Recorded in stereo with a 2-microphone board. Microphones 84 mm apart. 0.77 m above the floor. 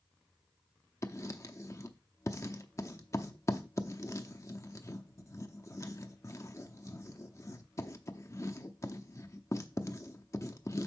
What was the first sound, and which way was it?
Writing, 35° left (ahead or behind).